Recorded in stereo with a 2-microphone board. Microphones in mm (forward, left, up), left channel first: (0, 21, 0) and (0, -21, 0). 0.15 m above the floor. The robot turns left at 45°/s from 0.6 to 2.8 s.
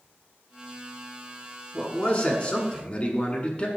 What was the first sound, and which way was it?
A man speaking, 105° left.